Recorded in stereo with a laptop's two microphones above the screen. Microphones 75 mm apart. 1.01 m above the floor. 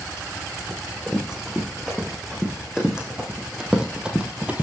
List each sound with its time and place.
0.7 s running footsteps: 5° right (ahead or behind), 6.5 m; by 4.6 s 20° right (ahead or behind), 1.9 m